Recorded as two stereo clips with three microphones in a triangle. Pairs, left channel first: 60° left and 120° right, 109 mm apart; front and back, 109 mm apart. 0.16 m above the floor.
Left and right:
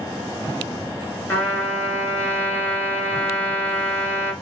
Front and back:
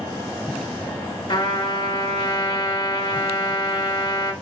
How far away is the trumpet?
About 2 m.